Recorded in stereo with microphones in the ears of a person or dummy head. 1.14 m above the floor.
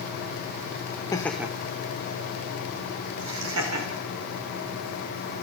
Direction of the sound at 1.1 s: 25° left (ahead or behind).